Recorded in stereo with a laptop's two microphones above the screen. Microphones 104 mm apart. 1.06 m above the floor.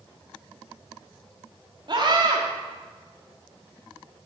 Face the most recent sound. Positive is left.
turn(degrees=-50)  # may be behind; listen again after turning